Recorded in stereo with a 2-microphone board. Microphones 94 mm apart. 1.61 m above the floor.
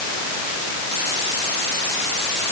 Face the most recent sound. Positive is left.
No sound to turn to.